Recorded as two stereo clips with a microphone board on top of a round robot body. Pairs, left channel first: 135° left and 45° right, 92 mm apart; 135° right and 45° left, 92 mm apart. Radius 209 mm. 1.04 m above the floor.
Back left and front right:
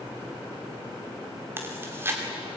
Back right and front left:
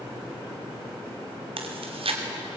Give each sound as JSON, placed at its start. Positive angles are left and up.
{"t": 1.6, "sound": "chewing", "azimuth_deg": 25, "distance_m": 2.5}